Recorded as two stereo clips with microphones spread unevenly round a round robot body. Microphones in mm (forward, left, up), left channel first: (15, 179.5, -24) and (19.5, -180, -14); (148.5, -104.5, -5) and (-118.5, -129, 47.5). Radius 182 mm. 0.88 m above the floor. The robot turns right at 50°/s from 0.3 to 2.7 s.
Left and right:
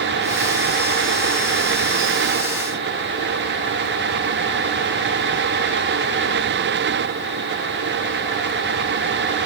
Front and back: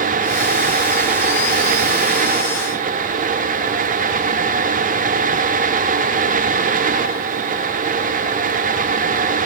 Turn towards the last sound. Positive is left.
No sound to turn to.